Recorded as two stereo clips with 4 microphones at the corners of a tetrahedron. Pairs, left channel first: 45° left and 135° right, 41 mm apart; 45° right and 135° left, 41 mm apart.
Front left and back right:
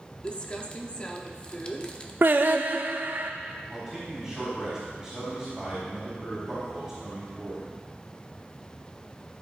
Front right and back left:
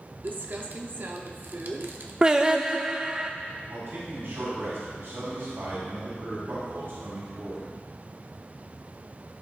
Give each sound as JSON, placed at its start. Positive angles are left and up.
{"t": 0.2, "sound": "crumpling", "azimuth_deg": 105, "distance_m": 0.8}
{"t": 2.2, "sound": "singing", "azimuth_deg": -160, "distance_m": 0.6}
{"t": 3.7, "sound": "a man speaking", "azimuth_deg": 140, "distance_m": 4.0}